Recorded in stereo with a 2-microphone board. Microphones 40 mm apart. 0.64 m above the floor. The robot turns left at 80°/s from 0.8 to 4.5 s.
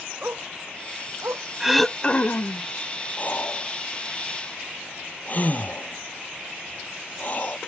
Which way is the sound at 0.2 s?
55° right (ahead or behind).